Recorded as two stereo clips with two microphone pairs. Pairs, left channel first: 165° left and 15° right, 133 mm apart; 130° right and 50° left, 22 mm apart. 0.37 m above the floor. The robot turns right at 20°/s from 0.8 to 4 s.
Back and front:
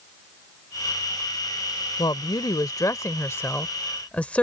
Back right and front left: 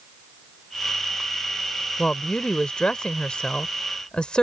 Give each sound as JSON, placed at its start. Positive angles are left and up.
{"t": 2.0, "sound": "a woman speaking", "azimuth_deg": -155}